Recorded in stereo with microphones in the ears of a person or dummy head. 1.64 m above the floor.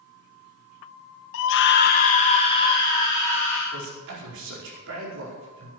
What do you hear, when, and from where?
1.3 s a scream: 70° left (ahead or behind), 1.0 m; by 3.6 s 10° left (ahead or behind), 2 m
3.7 s a man speaking: 70° right (ahead or behind), 4.5 m